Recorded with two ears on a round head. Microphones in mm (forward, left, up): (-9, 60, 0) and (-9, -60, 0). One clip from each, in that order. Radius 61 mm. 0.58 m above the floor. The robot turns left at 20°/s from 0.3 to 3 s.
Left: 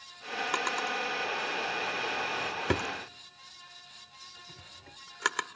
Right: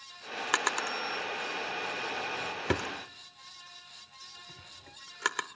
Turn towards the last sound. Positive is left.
turn(degrees=0)  # may be behind; listen again after turning